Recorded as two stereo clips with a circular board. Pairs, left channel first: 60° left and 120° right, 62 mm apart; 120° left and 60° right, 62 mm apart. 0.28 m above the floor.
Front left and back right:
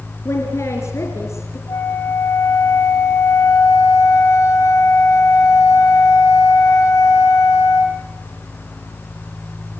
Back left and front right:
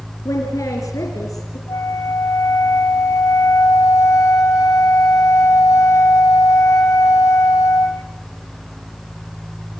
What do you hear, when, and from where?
0.2 s a woman speaking: 100° left, 4 m
1.7 s a flute: 95° left, 6 m